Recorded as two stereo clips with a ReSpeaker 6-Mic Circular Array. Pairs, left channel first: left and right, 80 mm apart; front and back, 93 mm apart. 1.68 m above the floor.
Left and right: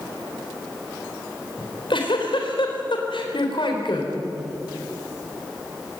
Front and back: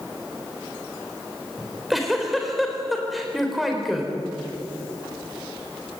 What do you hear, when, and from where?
1.6 s a giggle: 90° left, 4 m